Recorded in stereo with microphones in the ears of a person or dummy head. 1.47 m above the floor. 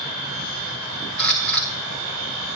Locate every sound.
1.2 s a camera shutter: 10° left (ahead or behind), 0.9 m